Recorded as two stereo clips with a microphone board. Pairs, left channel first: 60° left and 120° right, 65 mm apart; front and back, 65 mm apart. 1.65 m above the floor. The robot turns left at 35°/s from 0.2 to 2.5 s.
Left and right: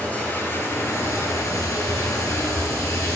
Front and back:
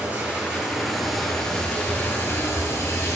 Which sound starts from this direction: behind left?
Running water, at 0.0 s.